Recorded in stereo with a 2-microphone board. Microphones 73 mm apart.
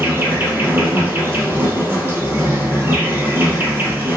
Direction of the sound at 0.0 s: 30° right (ahead or behind).